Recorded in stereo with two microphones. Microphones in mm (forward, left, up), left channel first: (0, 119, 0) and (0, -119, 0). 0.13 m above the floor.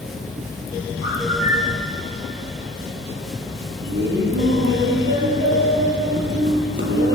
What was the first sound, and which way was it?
A bird, 55° right (ahead or behind).